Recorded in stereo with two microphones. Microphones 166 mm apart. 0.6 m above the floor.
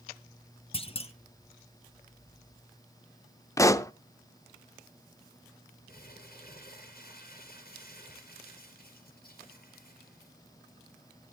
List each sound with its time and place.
0.7 s a clunk: 35° left (ahead or behind), 0.9 m
3.6 s a pop: 20° left (ahead or behind), 0.6 m
5.9 s crumpling: 70° left (ahead or behind), 5 m